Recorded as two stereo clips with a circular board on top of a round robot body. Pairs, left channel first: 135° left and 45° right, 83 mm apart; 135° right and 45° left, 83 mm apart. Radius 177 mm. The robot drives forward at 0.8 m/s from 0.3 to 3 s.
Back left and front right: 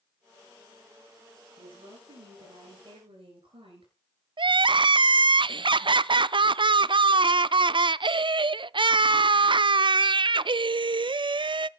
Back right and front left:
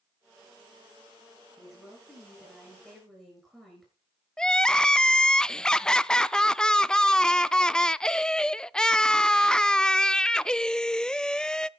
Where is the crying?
55° right, 0.5 m.